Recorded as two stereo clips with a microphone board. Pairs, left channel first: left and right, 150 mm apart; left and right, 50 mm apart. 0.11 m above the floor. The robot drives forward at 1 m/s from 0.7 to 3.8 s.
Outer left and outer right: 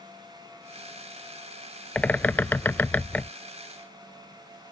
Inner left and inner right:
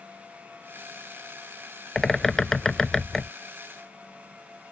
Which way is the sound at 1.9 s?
10° left (ahead or behind).